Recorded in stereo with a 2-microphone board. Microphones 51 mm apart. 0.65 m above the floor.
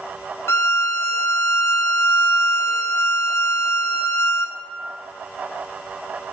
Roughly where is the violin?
Left.